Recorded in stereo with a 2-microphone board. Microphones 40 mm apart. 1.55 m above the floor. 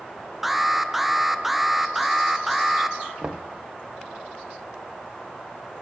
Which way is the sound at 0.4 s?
5° right (ahead or behind).